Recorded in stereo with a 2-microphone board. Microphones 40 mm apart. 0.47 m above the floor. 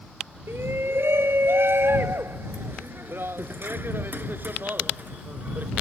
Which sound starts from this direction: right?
A shout, at 0.5 s.